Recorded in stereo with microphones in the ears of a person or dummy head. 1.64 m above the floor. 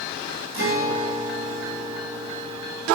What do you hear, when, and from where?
0.5 s a guitar: 45° right (ahead or behind), 1.0 m